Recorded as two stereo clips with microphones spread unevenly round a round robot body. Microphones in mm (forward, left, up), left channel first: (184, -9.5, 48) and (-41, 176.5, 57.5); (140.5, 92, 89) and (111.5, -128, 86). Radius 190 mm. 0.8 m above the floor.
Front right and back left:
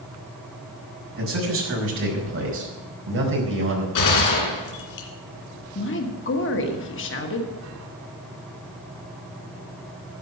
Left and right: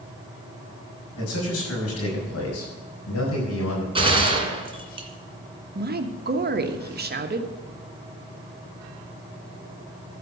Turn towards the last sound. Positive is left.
turn(degrees=-70)